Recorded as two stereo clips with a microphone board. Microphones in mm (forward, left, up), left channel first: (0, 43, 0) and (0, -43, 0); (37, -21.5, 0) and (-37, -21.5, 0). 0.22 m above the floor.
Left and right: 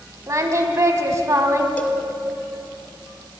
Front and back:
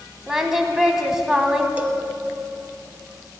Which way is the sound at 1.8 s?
145° left.